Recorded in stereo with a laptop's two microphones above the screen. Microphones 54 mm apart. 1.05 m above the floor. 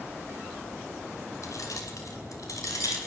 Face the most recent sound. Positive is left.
turn(degrees=85)